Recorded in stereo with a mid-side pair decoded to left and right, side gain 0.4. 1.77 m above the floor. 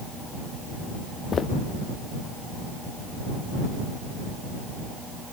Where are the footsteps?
55° left.